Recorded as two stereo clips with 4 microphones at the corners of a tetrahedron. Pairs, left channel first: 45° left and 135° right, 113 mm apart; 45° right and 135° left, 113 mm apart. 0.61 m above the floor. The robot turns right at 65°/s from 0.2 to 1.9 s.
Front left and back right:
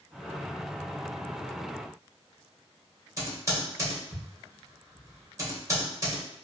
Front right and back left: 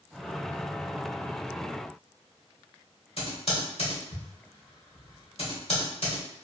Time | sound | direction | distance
3.2 | typing on a keyboard | 75° right | 1.1 m